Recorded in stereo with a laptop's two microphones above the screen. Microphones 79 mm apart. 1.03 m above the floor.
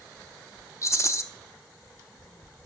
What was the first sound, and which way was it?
A rattle, 40° left (ahead or behind).